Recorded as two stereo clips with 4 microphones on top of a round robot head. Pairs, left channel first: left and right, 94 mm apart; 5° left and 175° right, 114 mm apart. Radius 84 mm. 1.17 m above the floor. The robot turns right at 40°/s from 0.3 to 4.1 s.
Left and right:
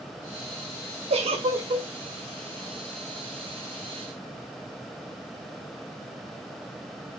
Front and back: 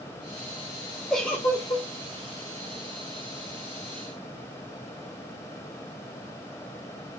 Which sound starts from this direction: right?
A giggle, at 1.1 s.